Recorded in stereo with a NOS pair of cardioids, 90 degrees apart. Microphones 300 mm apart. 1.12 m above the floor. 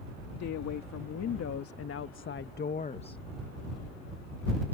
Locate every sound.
0.4 s a woman speaking: 65° left; by 3.2 s 15° left